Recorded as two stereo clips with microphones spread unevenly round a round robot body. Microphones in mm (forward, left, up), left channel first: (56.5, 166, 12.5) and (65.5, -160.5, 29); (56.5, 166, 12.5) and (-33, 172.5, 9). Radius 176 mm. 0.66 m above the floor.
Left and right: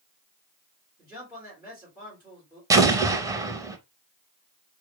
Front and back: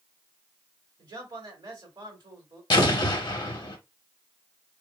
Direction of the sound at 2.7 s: 10° right.